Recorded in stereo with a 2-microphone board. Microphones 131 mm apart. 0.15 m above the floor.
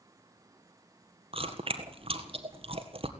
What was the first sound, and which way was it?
Chewing, 45° right (ahead or behind).